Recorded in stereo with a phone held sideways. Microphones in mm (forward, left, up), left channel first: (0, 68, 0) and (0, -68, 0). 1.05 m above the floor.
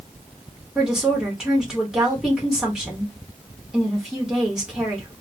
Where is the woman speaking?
5° right (ahead or behind), 1.1 m.